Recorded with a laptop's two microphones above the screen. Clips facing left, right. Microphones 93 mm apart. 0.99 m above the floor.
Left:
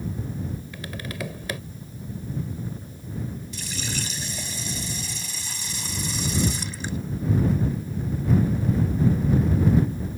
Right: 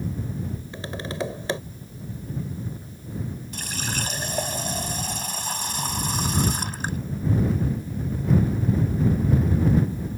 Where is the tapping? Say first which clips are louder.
Right 4 dB; 30° right (ahead or behind).